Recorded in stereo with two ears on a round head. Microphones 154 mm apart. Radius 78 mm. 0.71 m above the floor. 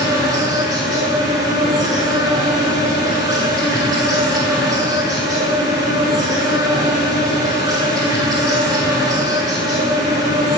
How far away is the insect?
About 9 m.